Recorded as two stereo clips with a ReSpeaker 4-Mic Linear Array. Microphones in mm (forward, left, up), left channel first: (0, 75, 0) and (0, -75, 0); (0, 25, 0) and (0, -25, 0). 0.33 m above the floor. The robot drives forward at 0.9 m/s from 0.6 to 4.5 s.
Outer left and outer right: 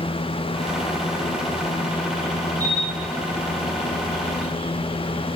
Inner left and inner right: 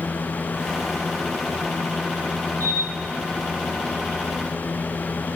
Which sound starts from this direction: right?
A camera shutter, at 2.6 s.